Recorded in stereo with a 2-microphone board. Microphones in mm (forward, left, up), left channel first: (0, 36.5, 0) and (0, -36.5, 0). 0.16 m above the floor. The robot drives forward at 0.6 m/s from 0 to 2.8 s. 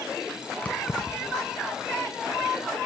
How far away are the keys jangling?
About 0.7 m.